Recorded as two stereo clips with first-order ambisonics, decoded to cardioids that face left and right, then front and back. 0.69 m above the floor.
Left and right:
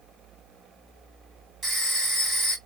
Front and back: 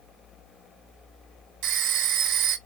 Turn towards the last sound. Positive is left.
turn(degrees=-165)